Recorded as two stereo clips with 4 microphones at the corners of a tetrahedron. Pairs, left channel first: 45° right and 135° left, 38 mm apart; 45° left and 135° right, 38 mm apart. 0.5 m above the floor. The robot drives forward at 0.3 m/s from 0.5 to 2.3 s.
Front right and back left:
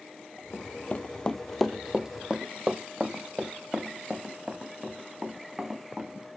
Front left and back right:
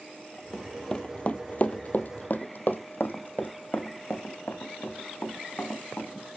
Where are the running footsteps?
25° right, 0.7 m; by 6.3 s 70° left, 2.5 m.